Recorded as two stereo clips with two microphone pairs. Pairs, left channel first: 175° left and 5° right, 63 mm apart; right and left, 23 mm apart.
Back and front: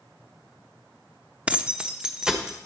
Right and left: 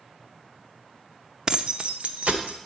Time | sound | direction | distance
1.5 | keys jangling | 65° left | 0.6 m